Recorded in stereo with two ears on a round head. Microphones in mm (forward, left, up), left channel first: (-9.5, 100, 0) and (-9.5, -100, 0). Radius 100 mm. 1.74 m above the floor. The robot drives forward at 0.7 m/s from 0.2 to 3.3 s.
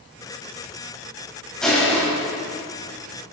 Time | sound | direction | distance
1.6 | crushing | 5° left (ahead or behind) | 5.5 m